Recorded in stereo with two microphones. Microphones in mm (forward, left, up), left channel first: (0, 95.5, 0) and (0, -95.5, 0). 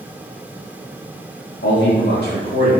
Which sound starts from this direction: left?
A man speaking, at 1.6 s.